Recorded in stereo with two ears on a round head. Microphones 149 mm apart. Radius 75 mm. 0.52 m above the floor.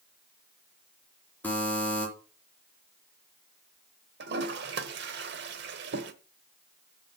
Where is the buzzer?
10° left (ahead or behind), 3.5 m.